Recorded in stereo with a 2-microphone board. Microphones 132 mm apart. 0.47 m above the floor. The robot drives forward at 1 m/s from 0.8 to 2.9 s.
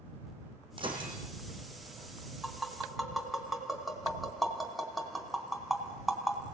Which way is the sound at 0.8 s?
40° right (ahead or behind).